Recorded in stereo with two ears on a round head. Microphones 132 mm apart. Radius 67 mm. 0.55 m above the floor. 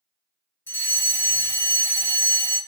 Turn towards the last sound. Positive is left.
turn(degrees=10)  # may be behind; listen again after turning